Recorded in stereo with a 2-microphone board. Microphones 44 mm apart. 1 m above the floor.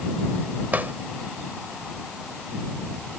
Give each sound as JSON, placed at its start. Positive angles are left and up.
{"t": 0.7, "sound": "a drawer", "side_deg": -45}